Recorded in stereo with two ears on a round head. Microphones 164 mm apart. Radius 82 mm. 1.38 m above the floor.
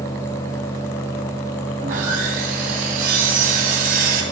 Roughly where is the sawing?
Right.